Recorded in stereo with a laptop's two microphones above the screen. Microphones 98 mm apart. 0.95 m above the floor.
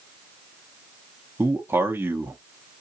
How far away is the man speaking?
About 0.9 m.